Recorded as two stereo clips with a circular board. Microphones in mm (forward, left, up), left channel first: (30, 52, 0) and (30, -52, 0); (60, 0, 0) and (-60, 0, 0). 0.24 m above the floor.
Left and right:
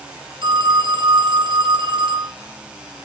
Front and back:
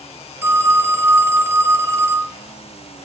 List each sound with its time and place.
0.4 s a phone ringing: 115° right, 1.7 m